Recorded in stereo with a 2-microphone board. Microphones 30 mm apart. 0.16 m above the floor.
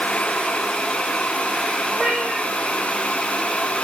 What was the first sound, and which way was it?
A cat meowing, 30° right (ahead or behind).